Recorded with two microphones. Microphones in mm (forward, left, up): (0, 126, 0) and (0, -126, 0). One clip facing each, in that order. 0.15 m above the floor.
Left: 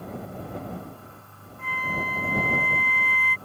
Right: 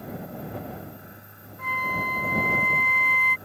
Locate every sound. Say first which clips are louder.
1.6 s a flute: even; 45° right (ahead or behind)